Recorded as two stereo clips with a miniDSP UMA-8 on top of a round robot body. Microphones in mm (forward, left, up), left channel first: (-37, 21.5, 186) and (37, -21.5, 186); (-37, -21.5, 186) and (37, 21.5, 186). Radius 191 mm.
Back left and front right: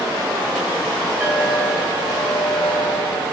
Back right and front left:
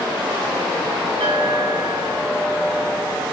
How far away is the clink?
About 8 m.